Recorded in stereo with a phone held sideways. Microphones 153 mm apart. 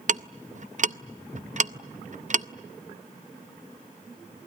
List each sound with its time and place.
0.1 s ticking: 55° right (ahead or behind), 0.6 m